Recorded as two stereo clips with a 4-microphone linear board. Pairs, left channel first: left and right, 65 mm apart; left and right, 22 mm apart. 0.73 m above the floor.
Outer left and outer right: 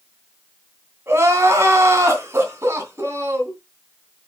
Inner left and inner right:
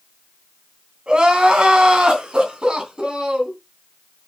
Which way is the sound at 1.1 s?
40° right (ahead or behind).